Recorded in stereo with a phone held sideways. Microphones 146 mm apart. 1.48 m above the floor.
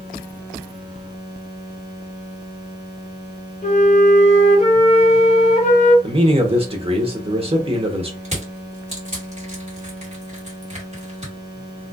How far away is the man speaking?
About 1.1 m.